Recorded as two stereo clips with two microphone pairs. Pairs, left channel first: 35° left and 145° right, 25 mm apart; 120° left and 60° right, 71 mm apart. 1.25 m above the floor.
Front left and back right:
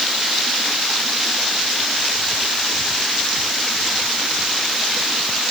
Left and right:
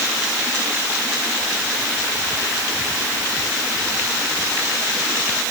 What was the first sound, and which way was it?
Only background noise.